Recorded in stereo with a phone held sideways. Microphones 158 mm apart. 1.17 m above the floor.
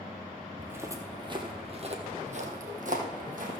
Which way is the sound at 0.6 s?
10° right (ahead or behind).